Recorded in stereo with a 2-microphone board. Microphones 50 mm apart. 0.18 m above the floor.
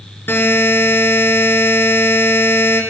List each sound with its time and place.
0.3 s a buzzer: 50° left (ahead or behind), 3 m